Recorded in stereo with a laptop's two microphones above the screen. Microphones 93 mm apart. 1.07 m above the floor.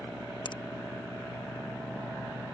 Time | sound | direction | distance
0.5 | a finger snap | 55° left (ahead or behind) | ?